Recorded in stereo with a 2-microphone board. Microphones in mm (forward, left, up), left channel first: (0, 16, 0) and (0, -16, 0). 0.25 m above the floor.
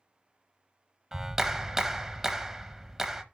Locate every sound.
1.1 s a clap: 15° right (ahead or behind), 0.8 m